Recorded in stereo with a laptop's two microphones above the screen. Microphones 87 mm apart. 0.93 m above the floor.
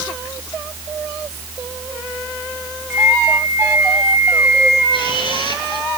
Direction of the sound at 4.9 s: 75° left (ahead or behind).